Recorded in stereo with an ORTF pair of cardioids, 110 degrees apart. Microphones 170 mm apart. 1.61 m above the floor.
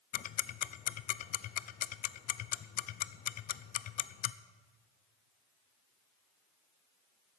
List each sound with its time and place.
0.1 s ticking: 55° left, 0.6 m